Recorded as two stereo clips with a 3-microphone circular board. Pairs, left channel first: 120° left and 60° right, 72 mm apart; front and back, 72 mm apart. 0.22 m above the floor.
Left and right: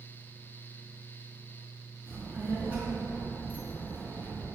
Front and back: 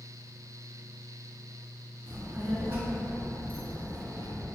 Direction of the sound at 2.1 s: 125° right.